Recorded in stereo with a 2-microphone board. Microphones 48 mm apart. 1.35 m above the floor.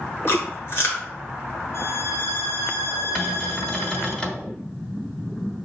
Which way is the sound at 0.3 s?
50° left (ahead or behind).